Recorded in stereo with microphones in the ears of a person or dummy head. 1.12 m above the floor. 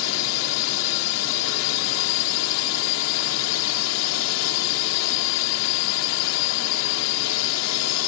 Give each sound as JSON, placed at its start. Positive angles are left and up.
{"t": 0.0, "sound": "a drone", "side_deg": 75}